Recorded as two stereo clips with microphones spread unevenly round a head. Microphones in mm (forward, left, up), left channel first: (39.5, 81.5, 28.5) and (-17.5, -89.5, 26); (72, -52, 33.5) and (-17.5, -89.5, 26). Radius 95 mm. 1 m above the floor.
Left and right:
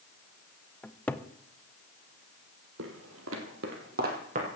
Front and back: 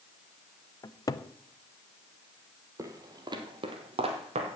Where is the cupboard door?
5° right, 0.8 m.